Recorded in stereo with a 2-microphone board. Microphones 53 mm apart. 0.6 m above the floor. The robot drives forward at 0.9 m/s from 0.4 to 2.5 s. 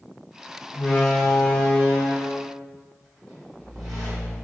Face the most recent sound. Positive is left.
turn(degrees=10)  # may be behind; listen again after turning